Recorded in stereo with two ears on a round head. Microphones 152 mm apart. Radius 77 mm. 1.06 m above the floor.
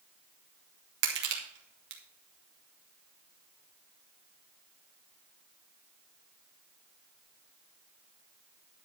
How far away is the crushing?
About 2.5 m.